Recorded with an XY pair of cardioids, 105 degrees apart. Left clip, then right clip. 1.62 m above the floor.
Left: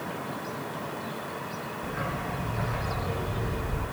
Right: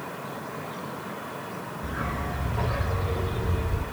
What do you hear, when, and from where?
1.8 s a dog barking: 30° right, 6 m; by 3.8 s 50° right, 6.5 m